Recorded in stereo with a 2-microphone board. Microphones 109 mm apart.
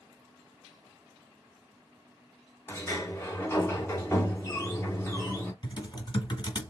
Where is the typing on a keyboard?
40° left (ahead or behind), 1.8 m.